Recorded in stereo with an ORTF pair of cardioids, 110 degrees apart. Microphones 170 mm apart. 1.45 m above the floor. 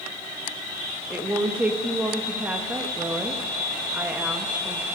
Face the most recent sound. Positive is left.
turn(degrees=-10)